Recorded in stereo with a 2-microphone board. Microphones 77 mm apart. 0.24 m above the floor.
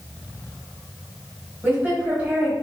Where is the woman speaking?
20° right (ahead or behind), 1.6 m.